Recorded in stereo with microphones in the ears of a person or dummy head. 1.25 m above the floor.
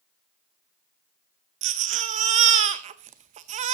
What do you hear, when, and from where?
1.6 s a baby crying: 40° right (ahead or behind), 0.9 m